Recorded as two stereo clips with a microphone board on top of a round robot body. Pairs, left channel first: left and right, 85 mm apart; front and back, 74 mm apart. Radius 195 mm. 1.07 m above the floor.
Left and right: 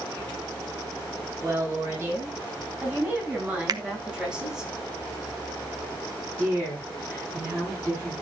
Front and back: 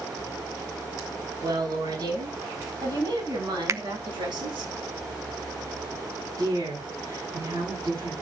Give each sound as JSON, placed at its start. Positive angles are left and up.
{"t": 1.4, "sound": "a woman speaking", "azimuth_deg": -155, "distance_m": 10.0}
{"t": 3.7, "sound": "a finger snap", "azimuth_deg": -130, "distance_m": 1.1}
{"t": 6.4, "sound": "a woman speaking", "azimuth_deg": -155, "distance_m": 9.5}